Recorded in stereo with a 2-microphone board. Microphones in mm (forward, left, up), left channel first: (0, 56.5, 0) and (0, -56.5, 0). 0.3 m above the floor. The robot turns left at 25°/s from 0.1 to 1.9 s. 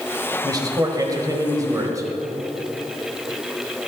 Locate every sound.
0.4 s a man speaking: 85° right, 1.7 m; by 2.1 s 120° right, 1.7 m